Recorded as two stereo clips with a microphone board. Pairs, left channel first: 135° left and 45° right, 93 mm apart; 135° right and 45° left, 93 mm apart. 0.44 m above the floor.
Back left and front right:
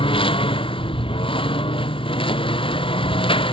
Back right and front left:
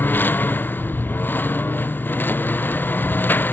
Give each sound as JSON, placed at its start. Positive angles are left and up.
{"t": 0.0, "sound": "a lawn mower", "azimuth_deg": 155}